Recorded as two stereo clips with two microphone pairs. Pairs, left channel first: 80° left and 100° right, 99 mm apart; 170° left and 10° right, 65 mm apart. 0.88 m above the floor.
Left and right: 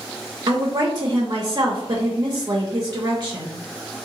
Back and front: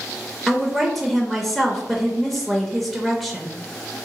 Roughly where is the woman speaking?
Right.